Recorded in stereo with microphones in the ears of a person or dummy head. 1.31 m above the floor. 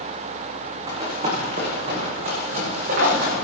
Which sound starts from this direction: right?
Running footsteps, at 0.9 s.